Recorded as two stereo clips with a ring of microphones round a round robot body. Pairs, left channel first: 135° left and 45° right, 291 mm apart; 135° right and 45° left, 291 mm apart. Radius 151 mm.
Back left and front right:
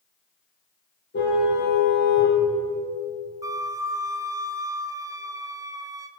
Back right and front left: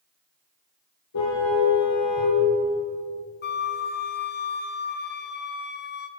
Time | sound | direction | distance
1.1 | a car horn | 170° right | 7.5 m
3.4 | a flute | 115° right | 1.4 m